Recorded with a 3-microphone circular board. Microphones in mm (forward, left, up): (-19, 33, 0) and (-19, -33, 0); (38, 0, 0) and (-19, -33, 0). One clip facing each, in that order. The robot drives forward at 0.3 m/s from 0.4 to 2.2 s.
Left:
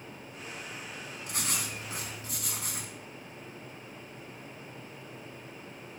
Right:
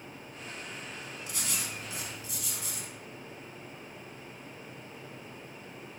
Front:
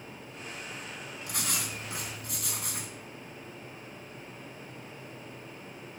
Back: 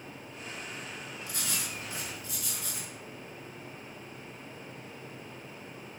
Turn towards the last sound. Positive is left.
turn(degrees=50)